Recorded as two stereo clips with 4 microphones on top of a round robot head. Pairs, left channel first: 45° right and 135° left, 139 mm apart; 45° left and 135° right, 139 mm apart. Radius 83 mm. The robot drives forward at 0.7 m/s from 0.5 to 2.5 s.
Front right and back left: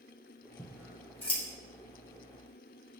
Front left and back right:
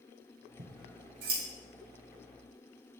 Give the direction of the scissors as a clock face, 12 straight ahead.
4 o'clock.